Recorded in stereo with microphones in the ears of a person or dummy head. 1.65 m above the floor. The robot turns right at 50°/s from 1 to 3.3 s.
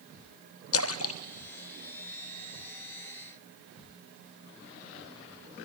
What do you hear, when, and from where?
0.7 s a splash: 70° left (ahead or behind), 0.6 m; by 2.5 s centre (ahead or behind), 0.6 m